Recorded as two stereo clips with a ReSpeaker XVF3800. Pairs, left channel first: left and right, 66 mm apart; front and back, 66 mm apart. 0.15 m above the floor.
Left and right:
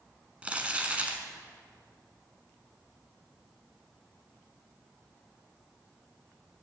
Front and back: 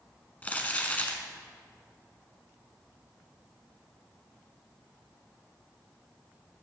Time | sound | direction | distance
0.4 | crumpling | 40° right | 1.4 m